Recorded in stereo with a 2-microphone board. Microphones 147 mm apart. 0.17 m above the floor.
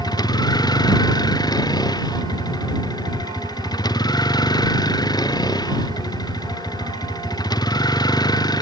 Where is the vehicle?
30° left (ahead or behind).